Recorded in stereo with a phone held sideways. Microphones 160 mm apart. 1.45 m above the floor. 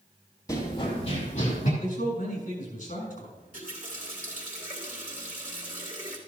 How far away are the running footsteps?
About 2 m.